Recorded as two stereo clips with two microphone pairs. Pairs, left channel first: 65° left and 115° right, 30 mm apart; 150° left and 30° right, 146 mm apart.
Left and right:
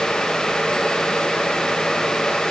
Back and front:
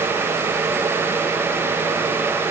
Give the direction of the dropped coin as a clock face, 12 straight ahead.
No dropped coin in this recording.